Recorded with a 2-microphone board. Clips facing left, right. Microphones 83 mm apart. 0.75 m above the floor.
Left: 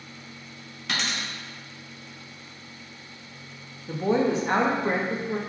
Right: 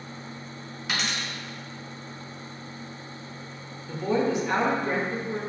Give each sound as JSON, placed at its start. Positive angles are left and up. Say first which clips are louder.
{"t": 0.9, "sound": "a dropped coin", "louder": "even", "side_deg": -5, "distance_m": 1.1}
{"t": 3.9, "sound": "a woman speaking", "louder": "left 2 dB", "side_deg": 35, "distance_m": 0.7}